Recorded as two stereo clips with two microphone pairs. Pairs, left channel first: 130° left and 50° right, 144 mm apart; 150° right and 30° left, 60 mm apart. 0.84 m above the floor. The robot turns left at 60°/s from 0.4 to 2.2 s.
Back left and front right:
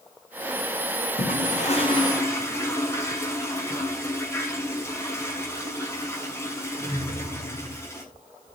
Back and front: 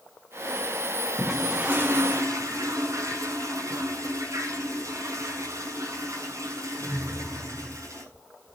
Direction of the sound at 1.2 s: 120° left.